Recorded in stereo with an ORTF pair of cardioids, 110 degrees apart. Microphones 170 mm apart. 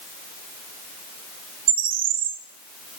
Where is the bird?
60° right, 0.7 m.